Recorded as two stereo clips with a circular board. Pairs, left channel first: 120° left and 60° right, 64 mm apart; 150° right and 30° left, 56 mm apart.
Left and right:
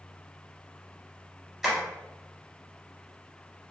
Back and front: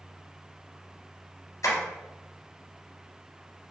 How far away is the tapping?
About 1.7 m.